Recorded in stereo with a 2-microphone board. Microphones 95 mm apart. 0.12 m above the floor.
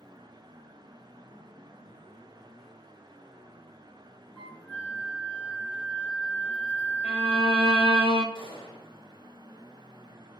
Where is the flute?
20° left (ahead or behind), 2.5 m.